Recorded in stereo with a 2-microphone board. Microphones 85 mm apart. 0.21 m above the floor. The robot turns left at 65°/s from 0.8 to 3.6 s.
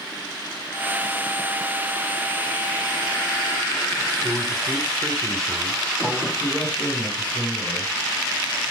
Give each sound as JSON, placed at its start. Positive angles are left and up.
{"t": 4.2, "sound": "a man speaking", "side_deg": 5, "distance_m": 1.4}
{"t": 6.4, "sound": "a man speaking", "side_deg": 15, "distance_m": 3.0}